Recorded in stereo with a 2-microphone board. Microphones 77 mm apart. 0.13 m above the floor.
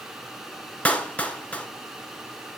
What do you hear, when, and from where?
0.8 s a clap: 20° left (ahead or behind), 1.2 m